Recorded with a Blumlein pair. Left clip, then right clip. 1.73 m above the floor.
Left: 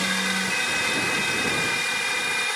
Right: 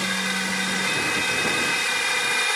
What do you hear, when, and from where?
0.0 s a drone: straight ahead; by 2.6 s 10° right